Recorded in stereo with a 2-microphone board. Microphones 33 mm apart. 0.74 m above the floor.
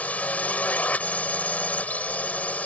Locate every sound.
0.0 s a drone: 50° left (ahead or behind)